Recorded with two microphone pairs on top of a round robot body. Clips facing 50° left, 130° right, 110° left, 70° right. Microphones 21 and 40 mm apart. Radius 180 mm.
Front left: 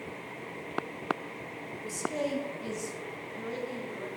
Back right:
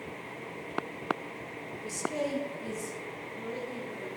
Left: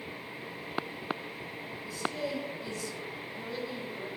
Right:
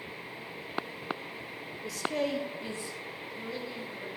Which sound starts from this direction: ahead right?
A man speaking, at 1.8 s.